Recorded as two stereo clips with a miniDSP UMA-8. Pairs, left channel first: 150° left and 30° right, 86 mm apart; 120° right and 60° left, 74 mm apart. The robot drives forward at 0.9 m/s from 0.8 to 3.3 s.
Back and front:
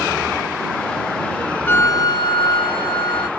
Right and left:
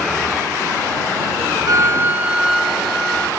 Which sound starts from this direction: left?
A flute, at 1.7 s.